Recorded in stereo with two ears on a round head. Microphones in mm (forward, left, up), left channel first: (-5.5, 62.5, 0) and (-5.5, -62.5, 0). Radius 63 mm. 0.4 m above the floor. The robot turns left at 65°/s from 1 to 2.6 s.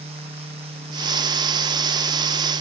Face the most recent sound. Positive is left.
No sound to turn to.